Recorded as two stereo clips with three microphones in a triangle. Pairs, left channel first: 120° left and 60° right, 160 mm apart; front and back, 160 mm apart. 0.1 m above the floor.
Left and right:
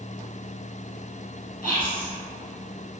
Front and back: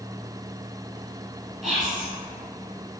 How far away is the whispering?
About 1.2 m.